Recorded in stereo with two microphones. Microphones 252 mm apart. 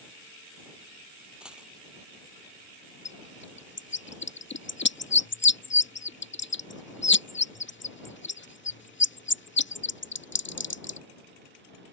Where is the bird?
45° left (ahead or behind).